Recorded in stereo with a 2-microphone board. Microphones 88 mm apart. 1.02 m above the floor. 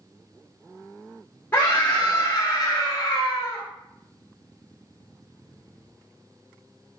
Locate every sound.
1.5 s a scream: 20° left (ahead or behind), 0.7 m; by 3.6 s 40° left (ahead or behind), 1.0 m